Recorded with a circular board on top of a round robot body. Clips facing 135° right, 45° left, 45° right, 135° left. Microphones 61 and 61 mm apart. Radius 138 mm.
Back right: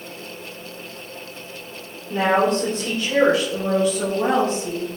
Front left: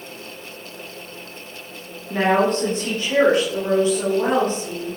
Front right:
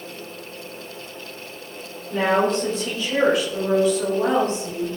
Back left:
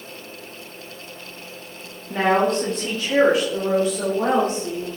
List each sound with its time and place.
2.1 s a woman speaking: 95° left, 2.5 m; by 5.0 s 110° left, 5 m